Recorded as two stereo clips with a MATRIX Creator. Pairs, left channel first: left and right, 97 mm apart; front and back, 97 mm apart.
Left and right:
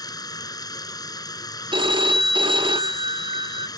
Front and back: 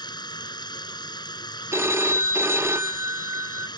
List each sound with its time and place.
0.0 s running water: 40° left
1.7 s a phone ringing: 120° right